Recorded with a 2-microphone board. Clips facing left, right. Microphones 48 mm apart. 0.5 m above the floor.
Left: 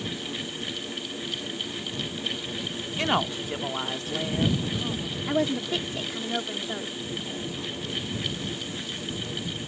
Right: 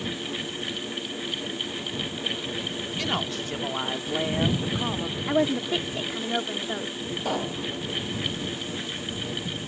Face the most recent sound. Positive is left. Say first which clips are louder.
# right 6 dB
turn(degrees=-85)